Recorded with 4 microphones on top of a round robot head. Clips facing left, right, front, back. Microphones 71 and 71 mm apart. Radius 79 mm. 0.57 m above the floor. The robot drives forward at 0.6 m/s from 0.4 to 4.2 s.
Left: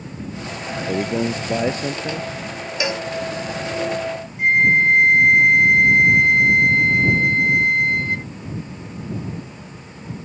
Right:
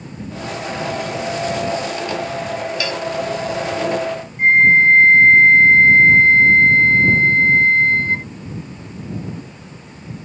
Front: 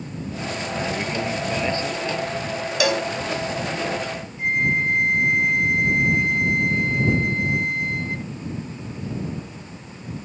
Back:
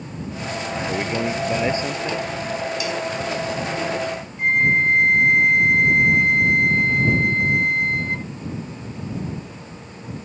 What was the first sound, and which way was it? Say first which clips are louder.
A man speaking: left 3 dB, back 3 dB; 105° left.